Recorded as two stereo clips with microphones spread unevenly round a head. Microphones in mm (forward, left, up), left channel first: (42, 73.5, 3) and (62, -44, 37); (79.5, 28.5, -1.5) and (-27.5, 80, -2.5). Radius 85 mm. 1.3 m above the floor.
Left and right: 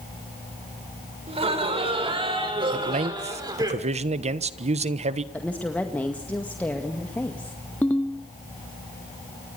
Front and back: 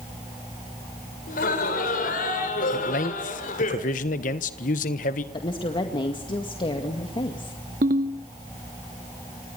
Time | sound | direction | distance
1.3 | laughter | 40° right | 6 m
2.7 | a man speaking | 45° right | 1.3 m
5.3 | a woman speaking | 25° left | 2 m
7.8 | a ringtone | 175° right | 1.7 m